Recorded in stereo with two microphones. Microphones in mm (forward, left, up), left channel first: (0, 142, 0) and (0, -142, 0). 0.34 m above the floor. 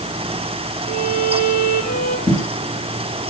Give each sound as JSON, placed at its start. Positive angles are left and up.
{"t": 0.9, "sound": "a violin", "side_deg": 75, "distance_m": 9.5}
{"t": 2.3, "sound": "footsteps", "side_deg": 5, "distance_m": 5.5}